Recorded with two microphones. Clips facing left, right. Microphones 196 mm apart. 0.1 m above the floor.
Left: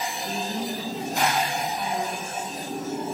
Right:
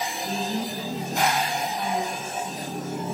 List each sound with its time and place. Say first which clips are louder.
0.2 s a woman speaking: right 1 dB; 15° right (ahead or behind), 4 m